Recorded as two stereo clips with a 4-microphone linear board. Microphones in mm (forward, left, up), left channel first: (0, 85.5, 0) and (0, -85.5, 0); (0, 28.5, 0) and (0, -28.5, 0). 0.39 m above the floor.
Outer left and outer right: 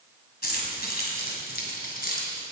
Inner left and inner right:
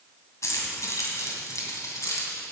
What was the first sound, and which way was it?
Keys jangling, 65° left (ahead or behind).